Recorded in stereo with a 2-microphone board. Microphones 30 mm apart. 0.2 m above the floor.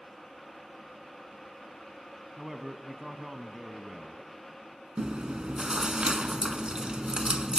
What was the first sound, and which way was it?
A man speaking, 15° right (ahead or behind).